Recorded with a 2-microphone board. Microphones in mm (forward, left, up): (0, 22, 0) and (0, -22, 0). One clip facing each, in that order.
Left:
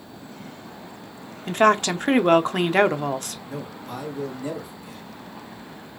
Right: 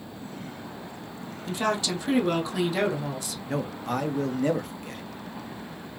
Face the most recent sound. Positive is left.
turn(degrees=-55)  # may be behind; listen again after turning